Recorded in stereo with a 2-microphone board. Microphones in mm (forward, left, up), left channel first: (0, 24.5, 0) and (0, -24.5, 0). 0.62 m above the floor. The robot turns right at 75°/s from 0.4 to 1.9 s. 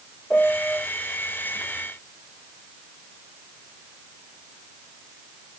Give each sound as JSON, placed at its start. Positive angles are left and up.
{"t": 0.3, "sound": "a piano", "side_deg": 15, "distance_m": 2.5}